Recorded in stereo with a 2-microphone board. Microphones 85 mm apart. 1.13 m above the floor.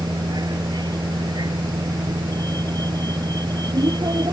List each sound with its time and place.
0.0 s a vehicle: 55° right (ahead or behind)